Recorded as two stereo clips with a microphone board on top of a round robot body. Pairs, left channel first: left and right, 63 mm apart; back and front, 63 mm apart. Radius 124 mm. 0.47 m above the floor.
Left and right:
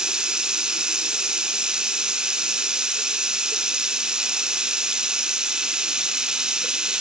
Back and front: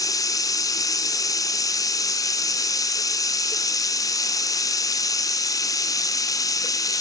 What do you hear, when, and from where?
0.0 s running water: 165° right, 1.3 m